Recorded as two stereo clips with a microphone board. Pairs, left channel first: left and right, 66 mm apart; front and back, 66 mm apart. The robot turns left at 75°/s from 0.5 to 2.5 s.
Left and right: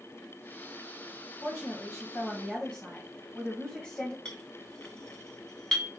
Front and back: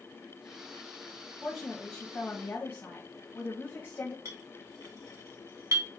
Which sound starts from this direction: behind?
A clink, at 4.2 s.